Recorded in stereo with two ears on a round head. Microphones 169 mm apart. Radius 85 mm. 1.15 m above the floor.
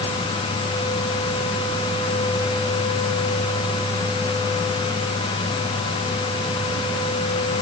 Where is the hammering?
No hammering in this recording.